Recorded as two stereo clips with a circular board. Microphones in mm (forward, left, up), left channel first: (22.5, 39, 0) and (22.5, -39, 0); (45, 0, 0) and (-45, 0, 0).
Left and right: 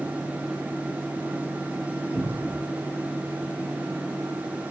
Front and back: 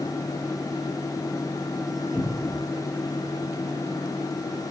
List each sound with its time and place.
2.1 s a cupboard door: 95° right, 1.2 m